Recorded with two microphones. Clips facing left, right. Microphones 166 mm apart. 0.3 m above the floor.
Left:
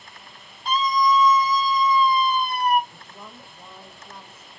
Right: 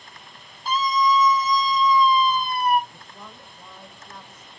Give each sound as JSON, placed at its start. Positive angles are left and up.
{"t": 0.7, "sound": "a scream", "side_deg": -5, "distance_m": 2.0}
{"t": 2.9, "sound": "a woman speaking", "side_deg": 10, "distance_m": 0.9}